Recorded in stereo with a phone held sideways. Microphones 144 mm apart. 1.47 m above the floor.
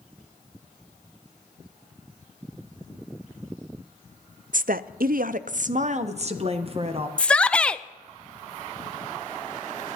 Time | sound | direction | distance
4.5 | a woman speaking | 65° right (ahead or behind) | 0.5 m
7.2 | a shout | 10° left (ahead or behind) | 0.6 m